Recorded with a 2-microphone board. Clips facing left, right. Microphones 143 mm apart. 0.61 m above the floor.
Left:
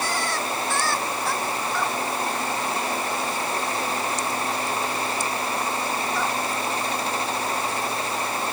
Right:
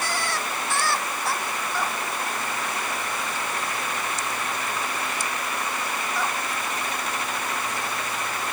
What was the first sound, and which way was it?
Only background noise.